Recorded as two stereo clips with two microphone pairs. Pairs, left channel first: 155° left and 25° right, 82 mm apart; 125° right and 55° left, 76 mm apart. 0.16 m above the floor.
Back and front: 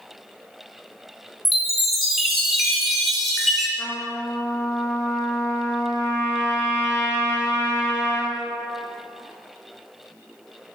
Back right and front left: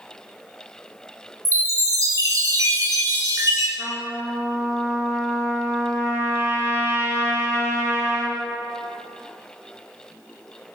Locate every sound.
1.4 s a chime: 70° left, 1.4 m
3.8 s a trumpet: 100° left, 2 m